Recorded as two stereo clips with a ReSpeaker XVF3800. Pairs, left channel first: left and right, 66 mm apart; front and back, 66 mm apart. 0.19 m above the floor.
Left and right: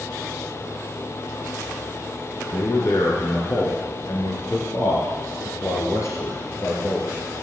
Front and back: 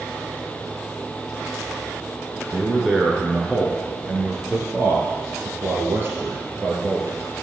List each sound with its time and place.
2.5 s a man speaking: 90° left, 2.5 m; by 7.2 s 135° left, 4 m